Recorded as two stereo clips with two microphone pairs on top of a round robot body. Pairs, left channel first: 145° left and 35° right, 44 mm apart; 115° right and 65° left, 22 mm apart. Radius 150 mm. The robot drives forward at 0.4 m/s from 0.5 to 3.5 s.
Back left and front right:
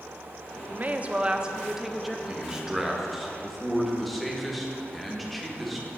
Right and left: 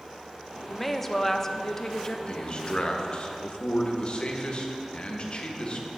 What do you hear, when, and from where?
0.7 s a woman speaking: 55° right, 0.8 m; by 2.2 s 135° right, 0.9 m
2.3 s a man speaking: 110° right, 1.3 m; by 5.9 s 130° right, 1.5 m